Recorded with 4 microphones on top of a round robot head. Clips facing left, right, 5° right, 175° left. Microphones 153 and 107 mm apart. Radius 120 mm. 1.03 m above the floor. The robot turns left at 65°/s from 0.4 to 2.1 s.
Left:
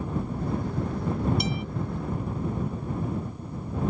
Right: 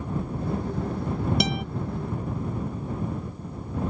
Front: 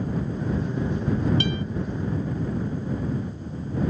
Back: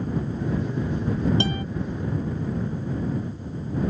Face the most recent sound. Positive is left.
turn(degrees=-155)